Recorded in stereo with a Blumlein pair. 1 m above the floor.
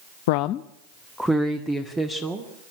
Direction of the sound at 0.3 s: 55° left.